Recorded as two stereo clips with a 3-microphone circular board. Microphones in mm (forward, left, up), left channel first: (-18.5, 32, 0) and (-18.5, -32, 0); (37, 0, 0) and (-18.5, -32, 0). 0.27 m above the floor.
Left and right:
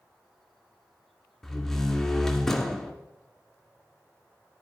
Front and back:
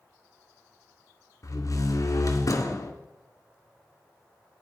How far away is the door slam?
About 2.5 m.